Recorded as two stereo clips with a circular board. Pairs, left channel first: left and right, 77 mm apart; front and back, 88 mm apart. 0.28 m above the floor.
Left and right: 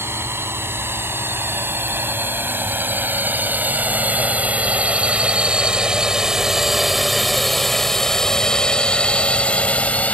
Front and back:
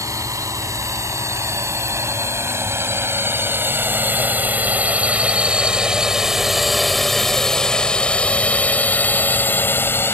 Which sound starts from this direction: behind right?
A drone, at 0.0 s.